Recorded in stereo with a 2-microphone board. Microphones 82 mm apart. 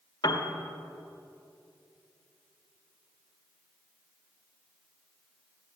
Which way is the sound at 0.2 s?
65° left (ahead or behind).